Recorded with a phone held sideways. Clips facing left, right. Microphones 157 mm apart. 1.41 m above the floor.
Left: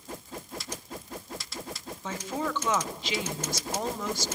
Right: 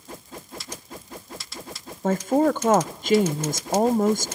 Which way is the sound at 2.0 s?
50° right (ahead or behind).